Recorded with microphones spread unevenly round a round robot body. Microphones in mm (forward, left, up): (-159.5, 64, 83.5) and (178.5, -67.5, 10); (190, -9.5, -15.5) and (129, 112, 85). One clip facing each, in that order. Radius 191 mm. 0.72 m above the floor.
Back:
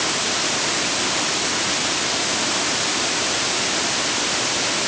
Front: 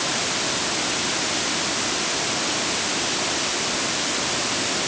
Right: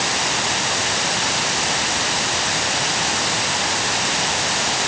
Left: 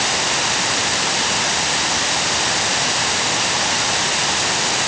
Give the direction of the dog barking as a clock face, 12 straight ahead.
No dog barking in this recording.